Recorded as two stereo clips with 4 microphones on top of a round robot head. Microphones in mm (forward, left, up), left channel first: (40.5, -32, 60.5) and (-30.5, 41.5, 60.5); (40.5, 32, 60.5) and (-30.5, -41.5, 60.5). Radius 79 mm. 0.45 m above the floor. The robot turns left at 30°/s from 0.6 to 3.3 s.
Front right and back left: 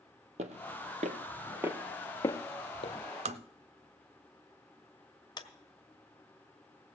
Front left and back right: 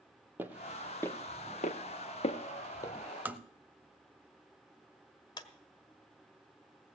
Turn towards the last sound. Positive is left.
turn(degrees=0)